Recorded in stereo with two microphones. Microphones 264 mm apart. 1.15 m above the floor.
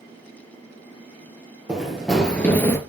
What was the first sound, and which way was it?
Running footsteps, 5° right (ahead or behind).